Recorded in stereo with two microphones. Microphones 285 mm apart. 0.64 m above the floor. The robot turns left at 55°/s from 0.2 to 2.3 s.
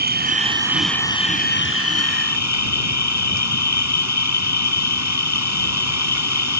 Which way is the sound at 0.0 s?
145° right.